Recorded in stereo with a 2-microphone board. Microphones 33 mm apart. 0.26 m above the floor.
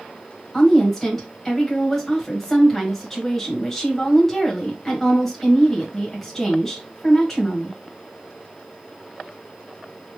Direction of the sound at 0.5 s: 10° left (ahead or behind).